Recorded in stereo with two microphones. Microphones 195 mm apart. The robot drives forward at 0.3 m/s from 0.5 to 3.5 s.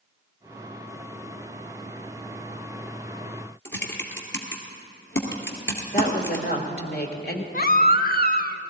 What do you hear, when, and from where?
3.6 s typing on a keyboard: 75° left (ahead or behind), 1.9 m
5.9 s a woman speaking: 55° left (ahead or behind), 1.7 m
7.5 s a baby crying: 50° left (ahead or behind), 0.6 m